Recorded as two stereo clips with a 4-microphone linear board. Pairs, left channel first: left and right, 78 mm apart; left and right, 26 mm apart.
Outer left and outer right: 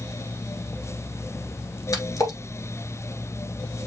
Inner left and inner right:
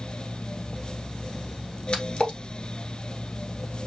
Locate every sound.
1.9 s a splash: 45° left (ahead or behind), 1.6 m